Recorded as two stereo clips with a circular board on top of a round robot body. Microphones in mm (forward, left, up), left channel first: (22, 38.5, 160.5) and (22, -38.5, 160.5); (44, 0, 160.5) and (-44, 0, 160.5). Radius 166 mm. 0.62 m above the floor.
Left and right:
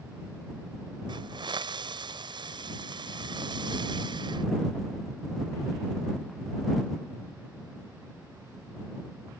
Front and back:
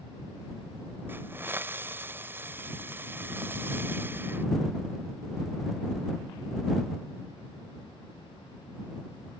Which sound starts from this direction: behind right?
A hiss, at 1.1 s.